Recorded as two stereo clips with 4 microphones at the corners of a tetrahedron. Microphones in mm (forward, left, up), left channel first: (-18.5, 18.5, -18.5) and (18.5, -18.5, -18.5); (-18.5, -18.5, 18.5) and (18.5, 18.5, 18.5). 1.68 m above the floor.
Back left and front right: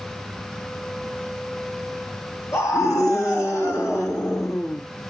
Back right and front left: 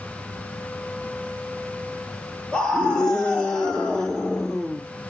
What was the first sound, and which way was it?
A scream, 155° left.